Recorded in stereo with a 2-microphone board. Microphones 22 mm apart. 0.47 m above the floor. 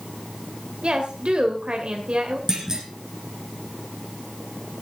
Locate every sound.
0.8 s a woman speaking: 55° right (ahead or behind), 2.5 m
2.5 s a clunk: 25° right (ahead or behind), 4 m